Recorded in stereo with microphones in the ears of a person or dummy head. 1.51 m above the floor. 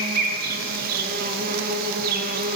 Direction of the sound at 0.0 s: 50° right (ahead or behind).